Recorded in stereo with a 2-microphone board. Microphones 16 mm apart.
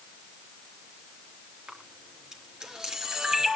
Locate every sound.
1.7 s a camera shutter: 40° right (ahead or behind), 4 m